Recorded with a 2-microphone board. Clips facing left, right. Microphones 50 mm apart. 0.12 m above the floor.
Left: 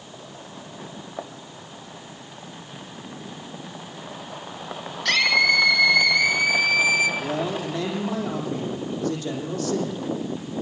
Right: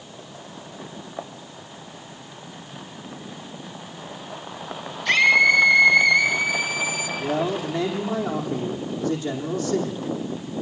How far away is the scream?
About 4 m.